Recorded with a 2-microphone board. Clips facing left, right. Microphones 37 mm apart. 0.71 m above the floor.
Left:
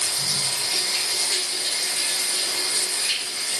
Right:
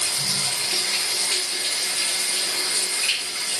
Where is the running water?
90° right, 4 m.